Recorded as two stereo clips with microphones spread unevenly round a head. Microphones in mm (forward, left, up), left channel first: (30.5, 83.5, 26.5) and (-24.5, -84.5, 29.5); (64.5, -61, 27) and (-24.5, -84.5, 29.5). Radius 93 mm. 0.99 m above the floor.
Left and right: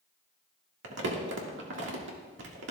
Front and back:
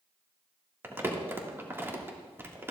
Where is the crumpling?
100° right, 1.8 m.